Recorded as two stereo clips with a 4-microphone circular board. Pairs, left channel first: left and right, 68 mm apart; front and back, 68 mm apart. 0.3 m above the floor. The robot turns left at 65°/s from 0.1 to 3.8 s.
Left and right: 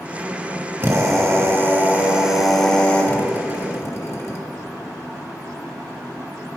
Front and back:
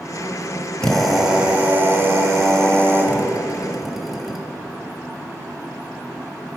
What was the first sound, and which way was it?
A drill, 70° right.